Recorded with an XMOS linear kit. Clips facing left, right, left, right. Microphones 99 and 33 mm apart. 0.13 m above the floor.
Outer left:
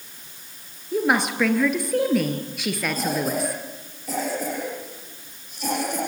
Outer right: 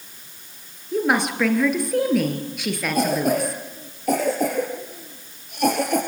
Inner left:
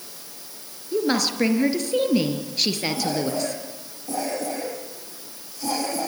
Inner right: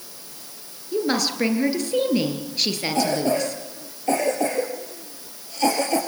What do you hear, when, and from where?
0.9 s a woman speaking: centre (ahead or behind), 3 m
3.0 s a cough: 65° right (ahead or behind), 3.5 m